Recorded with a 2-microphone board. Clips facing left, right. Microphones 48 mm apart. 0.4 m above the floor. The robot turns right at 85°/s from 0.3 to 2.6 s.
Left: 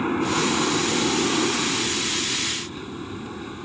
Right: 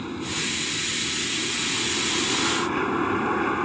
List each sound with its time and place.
0.0 s an aircraft: 40° left; by 3.6 s 125° right